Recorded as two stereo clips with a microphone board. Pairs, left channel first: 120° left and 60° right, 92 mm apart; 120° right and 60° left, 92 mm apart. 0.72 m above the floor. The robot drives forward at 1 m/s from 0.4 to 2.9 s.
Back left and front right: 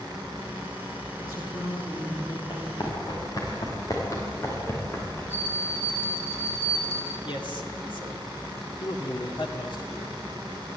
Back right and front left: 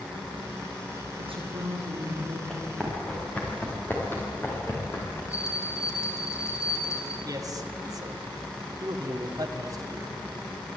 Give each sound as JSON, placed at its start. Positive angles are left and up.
{"t": 1.2, "sound": "a woman speaking", "azimuth_deg": 75, "distance_m": 10.0}
{"t": 2.5, "sound": "running footsteps", "azimuth_deg": 155, "distance_m": 6.5}
{"t": 5.3, "sound": "a bell", "azimuth_deg": -175, "distance_m": 4.5}
{"t": 7.2, "sound": "a man speaking", "azimuth_deg": 100, "distance_m": 2.5}